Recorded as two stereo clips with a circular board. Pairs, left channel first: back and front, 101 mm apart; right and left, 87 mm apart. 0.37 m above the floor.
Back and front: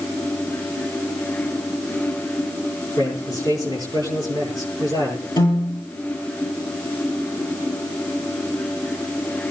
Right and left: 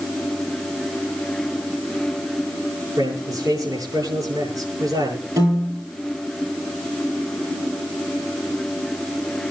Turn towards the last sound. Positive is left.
turn(degrees=140)